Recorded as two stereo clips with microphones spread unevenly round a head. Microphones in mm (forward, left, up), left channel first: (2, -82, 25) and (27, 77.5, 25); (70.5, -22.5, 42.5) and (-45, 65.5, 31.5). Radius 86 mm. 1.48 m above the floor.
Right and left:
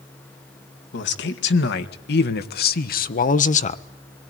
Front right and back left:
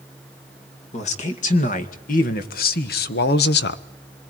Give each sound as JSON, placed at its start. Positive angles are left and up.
{"t": 0.9, "sound": "a man speaking", "azimuth_deg": -85, "distance_m": 2.5}